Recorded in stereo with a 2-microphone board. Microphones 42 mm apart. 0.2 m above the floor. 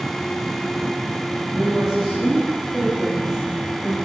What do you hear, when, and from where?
1.5 s a woman speaking: 10° right (ahead or behind), 6 m; by 4.0 s 5° left (ahead or behind), 3 m